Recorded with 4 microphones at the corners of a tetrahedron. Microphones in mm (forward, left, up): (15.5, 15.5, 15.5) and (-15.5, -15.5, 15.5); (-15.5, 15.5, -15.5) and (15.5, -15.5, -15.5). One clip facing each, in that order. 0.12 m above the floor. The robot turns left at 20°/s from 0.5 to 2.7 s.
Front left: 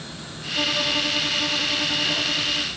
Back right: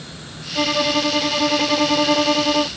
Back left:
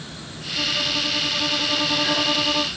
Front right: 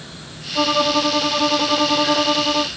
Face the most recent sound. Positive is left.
turn(degrees=-115)